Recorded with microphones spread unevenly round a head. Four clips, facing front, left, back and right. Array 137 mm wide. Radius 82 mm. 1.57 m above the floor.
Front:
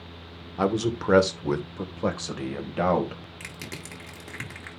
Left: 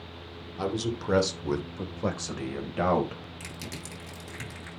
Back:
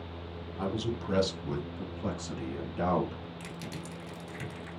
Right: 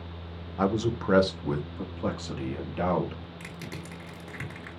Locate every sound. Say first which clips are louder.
0.6 s a man speaking: right 4 dB, front 9 dB; 25° right, 1.2 m; by 3.2 s 20° left, 2.5 m
3.4 s crushing: right 1 dB, even; 10° right, 2 m